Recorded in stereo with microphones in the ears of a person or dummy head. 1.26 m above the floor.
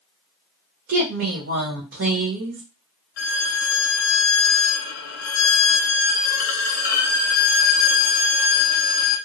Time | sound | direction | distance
0.9 | a woman speaking | 75° right (ahead or behind) | 1.1 m
3.2 | a violin | 70° left (ahead or behind) | 0.6 m